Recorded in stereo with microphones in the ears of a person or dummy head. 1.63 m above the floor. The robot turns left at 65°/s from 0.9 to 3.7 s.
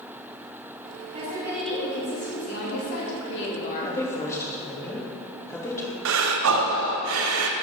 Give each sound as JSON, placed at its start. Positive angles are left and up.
{"t": 1.1, "sound": "a woman speaking", "azimuth_deg": -150, "distance_m": 3.0}
{"t": 3.9, "sound": "a woman speaking", "side_deg": 15, "distance_m": 2.5}
{"t": 6.0, "sound": "breathing", "side_deg": -70, "distance_m": 0.9}